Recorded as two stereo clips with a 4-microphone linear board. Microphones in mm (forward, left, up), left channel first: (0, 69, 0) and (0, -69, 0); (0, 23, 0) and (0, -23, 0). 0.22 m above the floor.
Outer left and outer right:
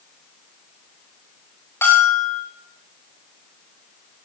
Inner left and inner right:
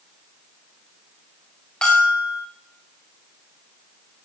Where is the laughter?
I don't hear laughter.